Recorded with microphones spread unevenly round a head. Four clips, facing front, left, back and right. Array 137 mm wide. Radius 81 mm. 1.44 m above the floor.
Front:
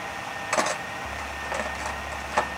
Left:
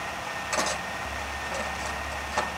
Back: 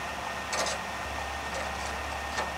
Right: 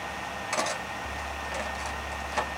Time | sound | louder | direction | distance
0.5 | cutlery clinking | left 1 dB, front 8 dB | straight ahead | 1.2 m